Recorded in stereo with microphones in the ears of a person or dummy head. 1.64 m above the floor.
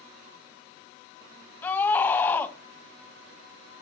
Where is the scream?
10° left (ahead or behind), 1.9 m.